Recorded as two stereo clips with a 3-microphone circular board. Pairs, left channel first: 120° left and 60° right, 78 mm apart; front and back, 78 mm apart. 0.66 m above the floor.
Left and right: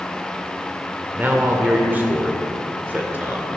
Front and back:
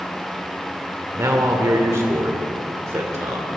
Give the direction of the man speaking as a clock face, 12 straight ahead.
4 o'clock.